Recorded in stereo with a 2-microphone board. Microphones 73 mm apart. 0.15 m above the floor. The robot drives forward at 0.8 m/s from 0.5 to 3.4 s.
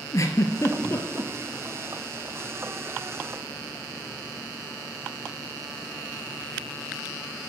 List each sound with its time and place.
0.1 s a giggle: 45° left (ahead or behind), 0.9 m; by 1.3 s 25° left (ahead or behind), 1.4 m